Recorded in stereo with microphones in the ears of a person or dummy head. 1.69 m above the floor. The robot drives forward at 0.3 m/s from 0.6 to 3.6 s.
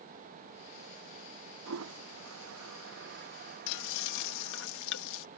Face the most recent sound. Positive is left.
turn(degrees=70)  # may be behind; listen again after turning